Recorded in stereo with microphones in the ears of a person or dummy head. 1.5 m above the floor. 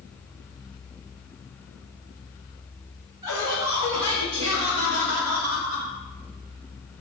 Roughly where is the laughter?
Right.